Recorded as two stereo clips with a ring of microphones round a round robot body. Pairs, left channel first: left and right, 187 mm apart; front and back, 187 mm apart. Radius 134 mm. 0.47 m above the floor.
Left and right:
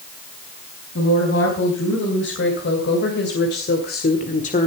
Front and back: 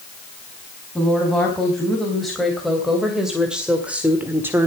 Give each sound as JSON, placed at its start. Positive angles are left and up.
{"t": 0.9, "sound": "a woman speaking", "azimuth_deg": 85, "distance_m": 4.5}